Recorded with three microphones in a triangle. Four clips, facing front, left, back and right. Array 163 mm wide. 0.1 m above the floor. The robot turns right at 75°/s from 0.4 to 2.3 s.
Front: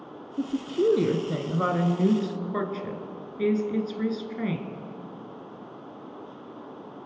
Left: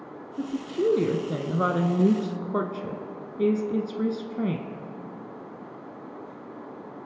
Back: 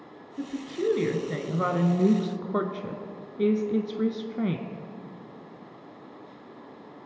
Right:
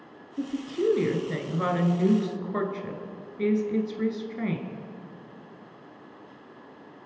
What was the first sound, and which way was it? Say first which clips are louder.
A woman speaking: left 1 dB, front 5 dB; 10° right.